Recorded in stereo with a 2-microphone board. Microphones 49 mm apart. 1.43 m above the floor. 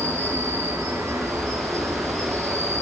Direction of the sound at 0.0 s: 80° right.